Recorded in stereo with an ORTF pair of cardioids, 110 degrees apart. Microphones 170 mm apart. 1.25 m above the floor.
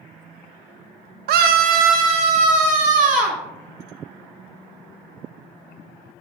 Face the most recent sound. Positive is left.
turn(degrees=-50)